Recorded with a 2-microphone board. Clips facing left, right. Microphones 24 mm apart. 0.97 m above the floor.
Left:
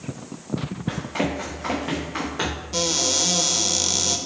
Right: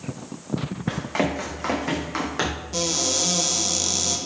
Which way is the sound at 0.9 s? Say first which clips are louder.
Right 1 dB; 70° right (ahead or behind).